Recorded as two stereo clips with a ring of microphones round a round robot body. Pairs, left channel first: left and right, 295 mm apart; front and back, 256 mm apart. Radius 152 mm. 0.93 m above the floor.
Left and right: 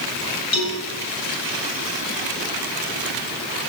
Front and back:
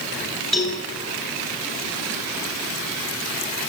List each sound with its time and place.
0.5 s a cowbell: 90° left, 7.5 m